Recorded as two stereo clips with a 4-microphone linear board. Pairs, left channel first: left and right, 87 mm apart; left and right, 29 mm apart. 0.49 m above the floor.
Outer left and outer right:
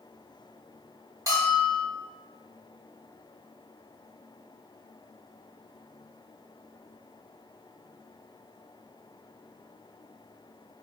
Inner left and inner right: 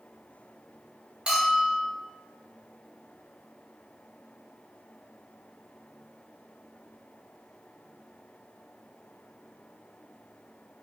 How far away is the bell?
About 1.2 m.